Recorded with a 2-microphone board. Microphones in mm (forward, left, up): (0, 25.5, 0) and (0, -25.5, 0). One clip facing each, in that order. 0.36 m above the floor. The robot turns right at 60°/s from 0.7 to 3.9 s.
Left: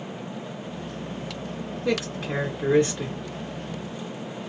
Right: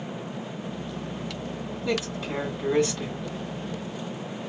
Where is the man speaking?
70° left, 2 m; by 3.2 s 150° left, 2 m.